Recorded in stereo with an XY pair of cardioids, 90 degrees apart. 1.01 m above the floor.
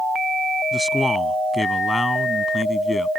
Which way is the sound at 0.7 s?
10° left.